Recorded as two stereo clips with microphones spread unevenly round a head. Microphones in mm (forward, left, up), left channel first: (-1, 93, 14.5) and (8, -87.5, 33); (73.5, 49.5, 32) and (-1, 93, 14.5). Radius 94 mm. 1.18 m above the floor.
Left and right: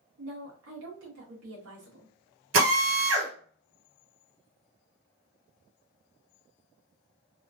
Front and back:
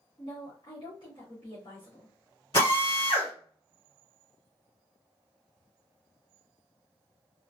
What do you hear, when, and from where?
0.2 s a woman speaking: 90° right, 1.3 m
2.5 s a drill: 90° right, 1.9 m